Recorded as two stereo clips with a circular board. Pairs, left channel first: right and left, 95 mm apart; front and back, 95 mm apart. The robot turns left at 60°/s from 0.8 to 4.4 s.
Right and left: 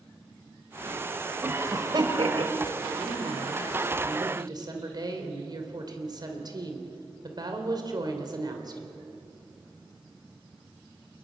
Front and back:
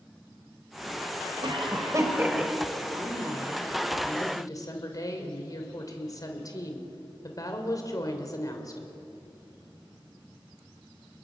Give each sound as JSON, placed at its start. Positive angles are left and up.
{"t": 1.4, "sound": "a cough", "azimuth_deg": 160, "distance_m": 3.5}
{"t": 2.9, "sound": "a woman speaking", "azimuth_deg": 135, "distance_m": 3.0}